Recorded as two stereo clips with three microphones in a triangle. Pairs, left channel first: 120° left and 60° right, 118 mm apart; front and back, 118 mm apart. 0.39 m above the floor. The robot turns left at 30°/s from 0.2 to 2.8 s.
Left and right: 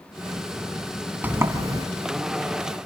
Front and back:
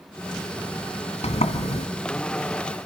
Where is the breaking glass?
I don't hear breaking glass.